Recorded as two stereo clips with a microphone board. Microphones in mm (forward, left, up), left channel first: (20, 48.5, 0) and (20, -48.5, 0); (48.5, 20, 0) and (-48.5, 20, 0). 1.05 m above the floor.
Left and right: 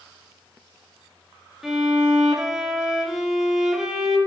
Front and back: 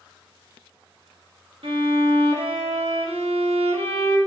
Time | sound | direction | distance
1.6 | a violin | 175° right | 1.3 m